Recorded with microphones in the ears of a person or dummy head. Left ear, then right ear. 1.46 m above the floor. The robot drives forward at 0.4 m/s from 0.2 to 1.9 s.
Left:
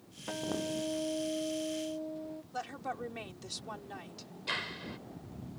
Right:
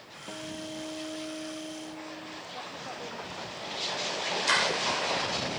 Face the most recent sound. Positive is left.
turn(degrees=-50)  # may be behind; listen again after turning